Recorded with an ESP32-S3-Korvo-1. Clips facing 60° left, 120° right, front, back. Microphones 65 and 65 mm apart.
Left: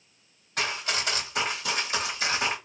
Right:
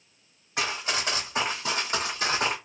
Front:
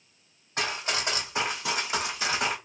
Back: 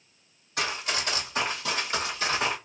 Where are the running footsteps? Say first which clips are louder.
Right 1 dB, even; 50° right, 2.0 m; by 2.5 s 90° right, 1.8 m.